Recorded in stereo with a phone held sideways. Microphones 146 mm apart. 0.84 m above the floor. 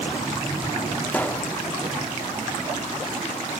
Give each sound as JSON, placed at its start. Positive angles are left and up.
{"t": 1.1, "sound": "a pop", "side_deg": 10, "distance_m": 0.5}